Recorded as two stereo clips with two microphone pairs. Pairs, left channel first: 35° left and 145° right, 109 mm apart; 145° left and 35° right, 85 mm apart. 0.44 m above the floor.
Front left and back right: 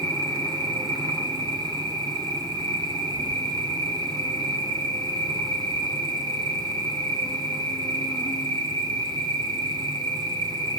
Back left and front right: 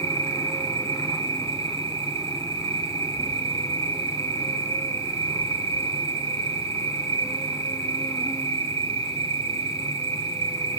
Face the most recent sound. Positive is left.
turn(degrees=90)